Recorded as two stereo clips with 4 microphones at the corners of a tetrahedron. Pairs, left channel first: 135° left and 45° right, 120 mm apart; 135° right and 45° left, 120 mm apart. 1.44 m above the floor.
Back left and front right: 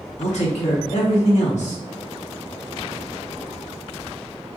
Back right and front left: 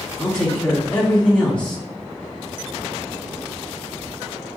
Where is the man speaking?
145° left, 0.9 m.